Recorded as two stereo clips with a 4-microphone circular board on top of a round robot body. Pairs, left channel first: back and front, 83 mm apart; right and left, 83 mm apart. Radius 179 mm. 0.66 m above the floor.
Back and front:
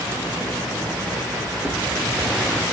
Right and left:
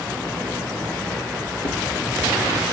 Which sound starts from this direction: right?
A drawer, at 1.6 s.